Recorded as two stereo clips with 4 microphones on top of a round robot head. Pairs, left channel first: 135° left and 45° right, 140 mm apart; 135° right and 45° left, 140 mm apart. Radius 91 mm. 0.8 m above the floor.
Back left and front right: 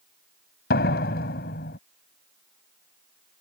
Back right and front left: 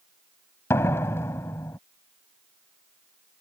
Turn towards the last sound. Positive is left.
turn(degrees=150)